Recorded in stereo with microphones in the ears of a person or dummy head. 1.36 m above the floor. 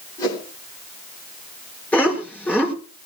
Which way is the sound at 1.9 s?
5° left (ahead or behind).